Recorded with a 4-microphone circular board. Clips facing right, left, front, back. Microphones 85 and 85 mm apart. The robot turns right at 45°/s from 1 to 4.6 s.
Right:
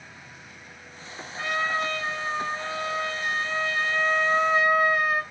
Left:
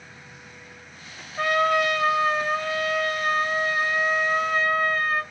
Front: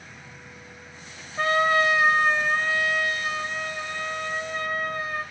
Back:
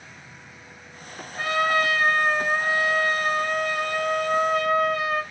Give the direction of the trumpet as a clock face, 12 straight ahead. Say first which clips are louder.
Left 6 dB, front 1 dB; 10 o'clock.